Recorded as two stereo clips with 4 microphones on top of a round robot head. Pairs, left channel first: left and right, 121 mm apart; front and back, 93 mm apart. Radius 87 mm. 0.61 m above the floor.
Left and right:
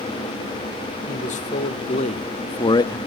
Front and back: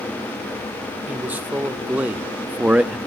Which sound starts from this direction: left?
A man speaking, at 1.1 s.